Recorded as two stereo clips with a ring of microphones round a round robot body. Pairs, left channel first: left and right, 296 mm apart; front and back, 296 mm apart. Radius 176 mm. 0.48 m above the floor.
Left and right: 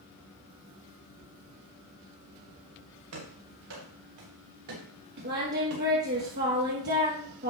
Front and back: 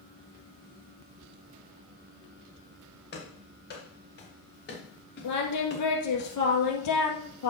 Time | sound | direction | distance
3.1 | running footsteps | 55° right | 5.5 m
5.2 | singing | 30° right | 2.5 m